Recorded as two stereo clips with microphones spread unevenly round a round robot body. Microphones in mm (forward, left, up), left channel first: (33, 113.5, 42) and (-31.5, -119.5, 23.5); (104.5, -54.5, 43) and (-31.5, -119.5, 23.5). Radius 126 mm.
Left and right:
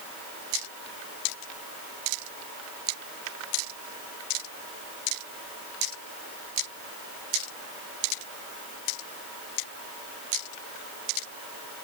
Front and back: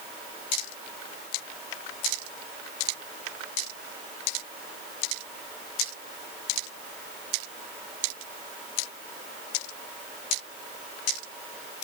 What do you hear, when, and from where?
Only background noise.